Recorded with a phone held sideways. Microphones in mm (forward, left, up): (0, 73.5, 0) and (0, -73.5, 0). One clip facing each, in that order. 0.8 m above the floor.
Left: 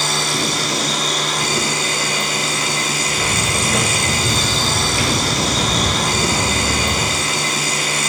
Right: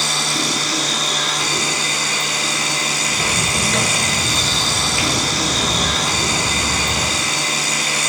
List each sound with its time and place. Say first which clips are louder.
0.0 s a machine running: left 2 dB; 55° left (ahead or behind), 0.7 m
3.1 s footsteps: even; 15° right (ahead or behind), 0.8 m; by 7.2 s 60° left (ahead or behind), 2 m